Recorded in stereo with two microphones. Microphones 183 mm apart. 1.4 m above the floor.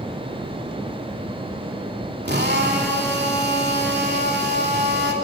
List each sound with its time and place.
2.2 s a drill: 65° right (ahead or behind), 3 m